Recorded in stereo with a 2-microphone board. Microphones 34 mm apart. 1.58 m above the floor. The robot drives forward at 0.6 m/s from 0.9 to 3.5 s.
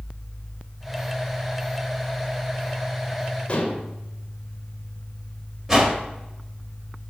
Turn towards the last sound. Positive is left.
turn(degrees=-20)  # may be behind; listen again after turning